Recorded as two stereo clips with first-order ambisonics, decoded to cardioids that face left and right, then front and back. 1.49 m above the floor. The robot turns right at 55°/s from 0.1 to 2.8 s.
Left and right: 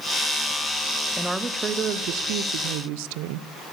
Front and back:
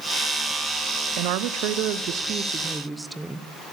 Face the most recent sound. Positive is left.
turn(degrees=-95)